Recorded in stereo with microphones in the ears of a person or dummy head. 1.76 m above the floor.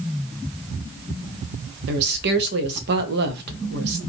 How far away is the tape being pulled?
No tape being pulled in this recording.